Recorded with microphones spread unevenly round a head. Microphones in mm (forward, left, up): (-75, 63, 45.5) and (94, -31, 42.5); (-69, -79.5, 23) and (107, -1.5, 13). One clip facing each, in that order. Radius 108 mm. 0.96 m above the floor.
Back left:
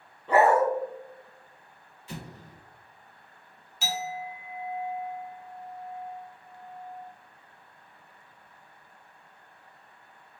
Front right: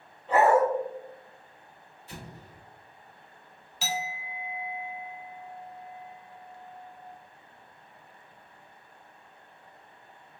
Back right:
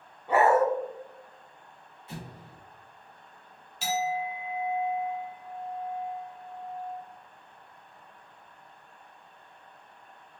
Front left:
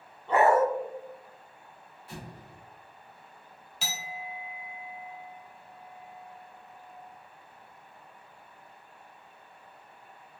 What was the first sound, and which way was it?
A dog barking, 125° left.